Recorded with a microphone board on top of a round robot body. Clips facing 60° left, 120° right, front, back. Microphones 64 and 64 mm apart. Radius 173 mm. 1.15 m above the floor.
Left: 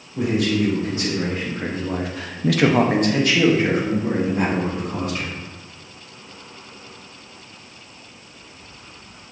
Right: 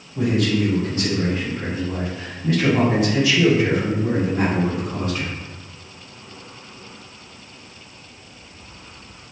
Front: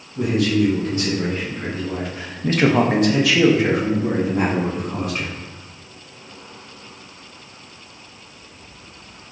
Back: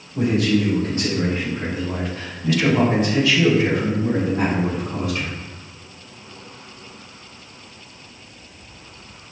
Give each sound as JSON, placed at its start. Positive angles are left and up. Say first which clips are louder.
{"t": 0.1, "sound": "a man speaking", "louder": "even, even", "azimuth_deg": 140, "distance_m": 1.4}